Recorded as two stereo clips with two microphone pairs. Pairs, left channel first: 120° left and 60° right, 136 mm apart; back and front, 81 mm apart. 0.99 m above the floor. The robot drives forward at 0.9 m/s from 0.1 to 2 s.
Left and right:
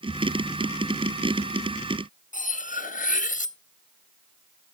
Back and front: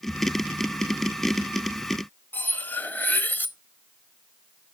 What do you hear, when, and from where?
2.3 s cutlery clinking: 120° left, 0.5 m